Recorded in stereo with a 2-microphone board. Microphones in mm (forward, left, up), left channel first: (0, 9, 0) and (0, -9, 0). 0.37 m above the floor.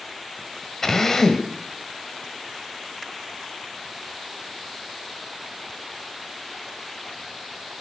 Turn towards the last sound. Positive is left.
turn(degrees=20)  # may be behind; listen again after turning